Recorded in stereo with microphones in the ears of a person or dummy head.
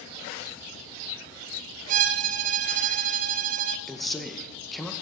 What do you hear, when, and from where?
1.9 s a violin: 50° right (ahead or behind), 0.6 m
3.9 s a man speaking: centre (ahead or behind), 0.8 m